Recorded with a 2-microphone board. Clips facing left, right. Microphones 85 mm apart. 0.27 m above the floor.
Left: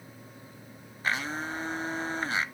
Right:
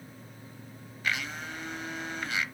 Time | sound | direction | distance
1.0 | a blender | 35° left (ahead or behind) | 0.5 m